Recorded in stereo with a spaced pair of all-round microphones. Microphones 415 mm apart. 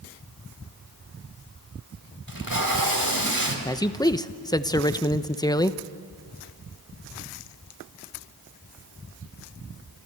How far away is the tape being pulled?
About 3 m.